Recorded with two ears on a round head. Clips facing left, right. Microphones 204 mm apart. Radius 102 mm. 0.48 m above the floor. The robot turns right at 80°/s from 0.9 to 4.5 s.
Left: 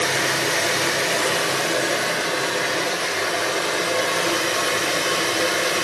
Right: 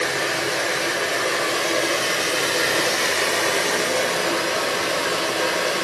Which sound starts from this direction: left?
Running water, at 0.0 s.